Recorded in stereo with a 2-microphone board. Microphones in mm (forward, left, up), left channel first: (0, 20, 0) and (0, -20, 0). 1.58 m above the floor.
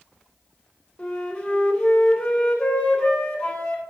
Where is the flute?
20° left (ahead or behind), 3 m.